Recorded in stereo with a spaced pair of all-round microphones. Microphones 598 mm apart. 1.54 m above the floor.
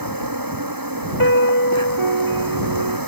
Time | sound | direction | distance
0.0 | an insect | 35° right (ahead or behind) | ?
1.2 | a piano | 55° right (ahead or behind) | ?